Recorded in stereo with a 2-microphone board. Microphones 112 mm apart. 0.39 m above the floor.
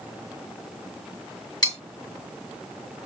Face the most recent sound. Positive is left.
turn(degrees=40)  # may be behind; listen again after turning